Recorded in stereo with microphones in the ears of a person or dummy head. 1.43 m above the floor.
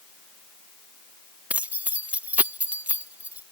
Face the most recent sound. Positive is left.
turn(degrees=-10)  # may be behind; listen again after turning